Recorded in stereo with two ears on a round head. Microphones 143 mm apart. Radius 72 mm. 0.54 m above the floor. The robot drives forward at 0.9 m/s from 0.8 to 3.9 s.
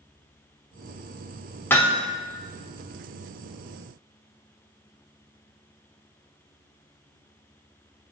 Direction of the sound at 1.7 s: 15° left (ahead or behind).